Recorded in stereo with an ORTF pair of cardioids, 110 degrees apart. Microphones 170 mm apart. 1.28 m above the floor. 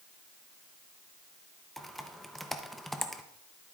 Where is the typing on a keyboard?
Straight ahead, 0.7 m.